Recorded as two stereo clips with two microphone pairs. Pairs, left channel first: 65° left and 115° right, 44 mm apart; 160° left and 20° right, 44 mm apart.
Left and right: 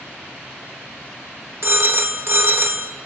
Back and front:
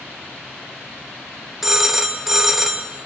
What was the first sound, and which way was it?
A phone ringing, 100° right.